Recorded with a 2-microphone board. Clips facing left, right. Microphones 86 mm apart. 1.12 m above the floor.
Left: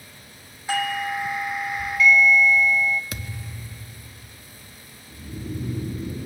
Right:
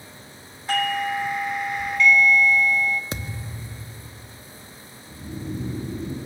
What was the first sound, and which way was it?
A doorbell, 5° left (ahead or behind).